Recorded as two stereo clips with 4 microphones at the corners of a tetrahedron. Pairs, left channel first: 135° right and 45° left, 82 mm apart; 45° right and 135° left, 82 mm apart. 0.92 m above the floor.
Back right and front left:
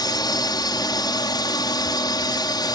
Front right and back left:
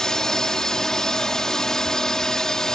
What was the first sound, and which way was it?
A drone, 125° right.